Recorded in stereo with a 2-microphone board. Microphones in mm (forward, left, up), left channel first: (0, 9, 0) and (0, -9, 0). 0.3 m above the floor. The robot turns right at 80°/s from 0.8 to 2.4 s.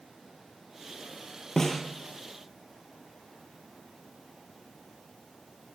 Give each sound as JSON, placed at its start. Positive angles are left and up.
{"t": 1.6, "sound": "a snare drum", "side_deg": 30, "distance_m": 5.5}